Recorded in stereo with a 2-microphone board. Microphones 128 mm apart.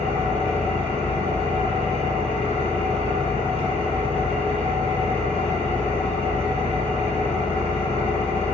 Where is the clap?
I don't hear a clap.